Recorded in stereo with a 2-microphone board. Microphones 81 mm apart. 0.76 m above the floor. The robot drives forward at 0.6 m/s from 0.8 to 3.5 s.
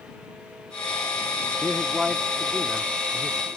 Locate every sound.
1.6 s a man speaking: 5° right (ahead or behind); by 3.5 s centre (ahead or behind)